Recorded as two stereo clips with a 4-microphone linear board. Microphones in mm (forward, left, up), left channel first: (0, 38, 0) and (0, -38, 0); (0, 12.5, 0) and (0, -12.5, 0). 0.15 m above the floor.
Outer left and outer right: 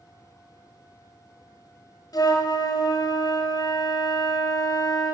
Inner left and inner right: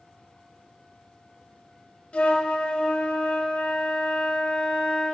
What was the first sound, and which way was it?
A flute, 55° left (ahead or behind).